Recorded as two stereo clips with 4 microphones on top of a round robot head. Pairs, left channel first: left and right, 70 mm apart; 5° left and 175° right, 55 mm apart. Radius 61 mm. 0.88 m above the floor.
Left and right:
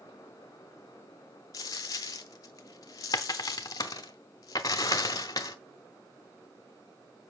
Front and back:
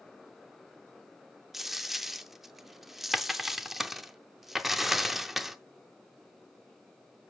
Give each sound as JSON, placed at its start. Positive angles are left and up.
{"t": 1.5, "sound": "a dropped coin", "azimuth_deg": 100, "distance_m": 0.5}